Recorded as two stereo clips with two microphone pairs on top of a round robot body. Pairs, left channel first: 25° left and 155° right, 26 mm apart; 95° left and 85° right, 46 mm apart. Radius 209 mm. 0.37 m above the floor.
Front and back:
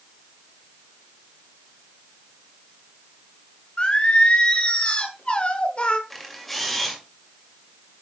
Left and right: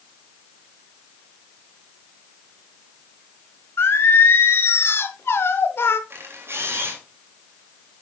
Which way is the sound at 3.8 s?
75° left.